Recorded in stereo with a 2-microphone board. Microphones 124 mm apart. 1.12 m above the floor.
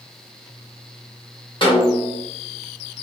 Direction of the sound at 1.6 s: 40° left (ahead or behind).